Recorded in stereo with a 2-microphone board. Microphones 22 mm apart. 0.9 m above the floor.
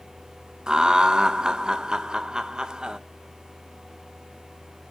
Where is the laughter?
40° right (ahead or behind), 0.5 m.